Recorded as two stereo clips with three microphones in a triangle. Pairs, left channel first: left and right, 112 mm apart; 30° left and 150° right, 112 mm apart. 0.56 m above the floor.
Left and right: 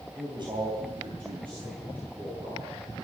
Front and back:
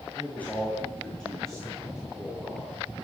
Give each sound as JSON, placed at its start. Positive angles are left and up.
{"t": 0.1, "sound": "a man speaking", "azimuth_deg": -40, "distance_m": 2.5}